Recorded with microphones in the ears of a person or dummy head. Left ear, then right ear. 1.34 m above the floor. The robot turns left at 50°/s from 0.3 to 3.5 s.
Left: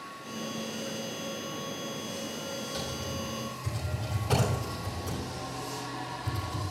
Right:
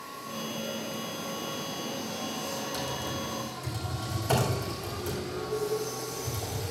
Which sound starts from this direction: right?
Typing on a keyboard, at 2.7 s.